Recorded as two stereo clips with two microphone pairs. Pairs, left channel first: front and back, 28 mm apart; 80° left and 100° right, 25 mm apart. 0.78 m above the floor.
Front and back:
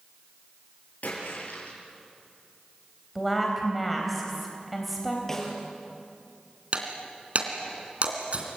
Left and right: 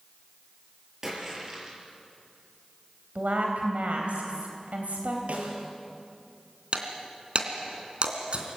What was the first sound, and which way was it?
A splash, 30° right.